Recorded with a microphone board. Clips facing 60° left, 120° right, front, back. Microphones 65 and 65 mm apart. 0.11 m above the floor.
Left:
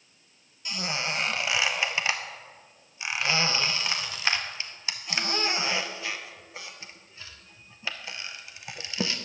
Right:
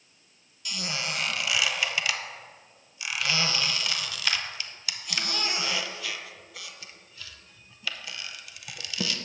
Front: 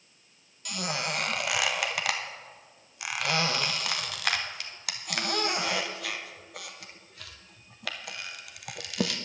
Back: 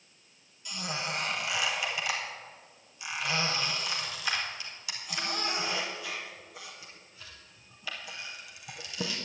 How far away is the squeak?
About 0.9 m.